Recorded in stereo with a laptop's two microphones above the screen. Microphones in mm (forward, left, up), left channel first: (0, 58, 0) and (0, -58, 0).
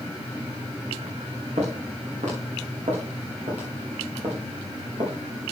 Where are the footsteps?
80° right, 6 m; by 5.1 s 55° right (ahead or behind), 5 m.